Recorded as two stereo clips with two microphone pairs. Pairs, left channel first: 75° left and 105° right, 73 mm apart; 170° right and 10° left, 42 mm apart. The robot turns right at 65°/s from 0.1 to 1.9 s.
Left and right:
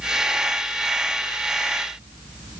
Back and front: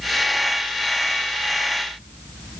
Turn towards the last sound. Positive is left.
No sound to turn to.